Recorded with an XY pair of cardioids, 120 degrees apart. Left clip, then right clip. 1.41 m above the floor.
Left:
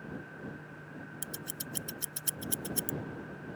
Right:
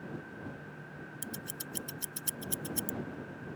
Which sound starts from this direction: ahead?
Scissors, at 1.2 s.